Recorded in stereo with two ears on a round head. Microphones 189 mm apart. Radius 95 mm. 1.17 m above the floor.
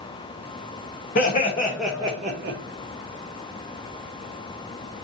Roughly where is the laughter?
Left.